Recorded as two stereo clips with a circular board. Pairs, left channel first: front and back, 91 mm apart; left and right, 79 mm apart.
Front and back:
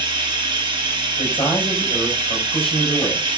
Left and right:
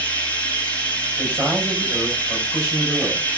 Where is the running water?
160° left, 2.0 m.